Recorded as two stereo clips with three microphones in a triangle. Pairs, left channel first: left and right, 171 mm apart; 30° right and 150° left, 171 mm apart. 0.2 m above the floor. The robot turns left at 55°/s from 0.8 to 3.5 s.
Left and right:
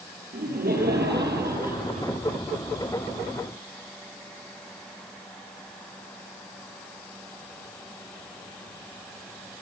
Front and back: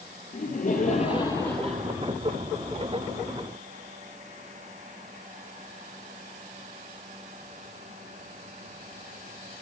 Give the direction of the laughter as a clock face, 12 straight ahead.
2 o'clock.